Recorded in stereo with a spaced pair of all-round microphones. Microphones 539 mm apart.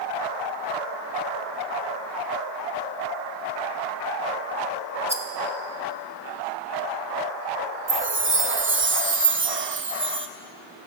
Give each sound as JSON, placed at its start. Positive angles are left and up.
{"t": 5.1, "sound": "a rattle", "side_deg": -10, "distance_m": 0.9}
{"t": 7.9, "sound": "a chime", "side_deg": -25, "distance_m": 0.5}